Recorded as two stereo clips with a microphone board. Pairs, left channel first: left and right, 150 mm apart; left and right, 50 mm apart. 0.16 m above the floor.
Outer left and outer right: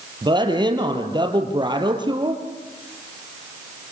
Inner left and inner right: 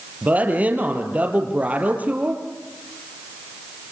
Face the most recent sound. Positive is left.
turn(degrees=-30)  # may be behind; listen again after turning